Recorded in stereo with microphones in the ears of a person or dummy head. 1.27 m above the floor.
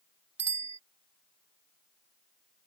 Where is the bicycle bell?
25° right (ahead or behind).